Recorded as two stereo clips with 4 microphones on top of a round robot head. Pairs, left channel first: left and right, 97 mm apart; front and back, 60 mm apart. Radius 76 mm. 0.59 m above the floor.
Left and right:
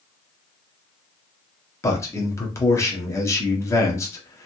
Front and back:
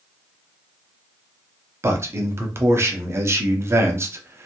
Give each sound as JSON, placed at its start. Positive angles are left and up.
{"t": 1.8, "sound": "a man speaking", "azimuth_deg": 145, "distance_m": 0.9}